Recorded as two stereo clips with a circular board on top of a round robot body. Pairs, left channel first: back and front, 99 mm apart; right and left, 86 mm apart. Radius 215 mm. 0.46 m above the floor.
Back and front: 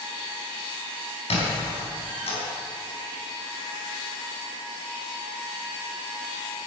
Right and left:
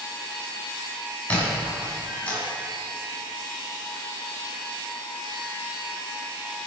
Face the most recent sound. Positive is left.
turn(degrees=-165)